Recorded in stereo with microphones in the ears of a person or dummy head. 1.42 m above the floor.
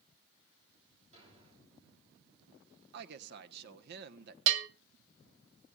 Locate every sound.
1.1 s a thud: 35° right (ahead or behind), 7 m
2.9 s a woman speaking: 60° right (ahead or behind), 1.3 m
4.5 s a bell: 80° right, 1.0 m